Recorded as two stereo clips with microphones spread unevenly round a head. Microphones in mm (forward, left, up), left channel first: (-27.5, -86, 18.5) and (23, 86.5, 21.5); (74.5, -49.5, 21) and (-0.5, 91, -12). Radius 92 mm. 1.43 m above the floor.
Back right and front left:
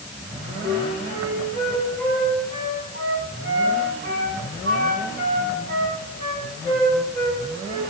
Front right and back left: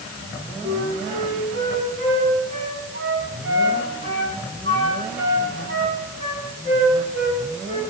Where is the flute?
110° left, 5.5 m.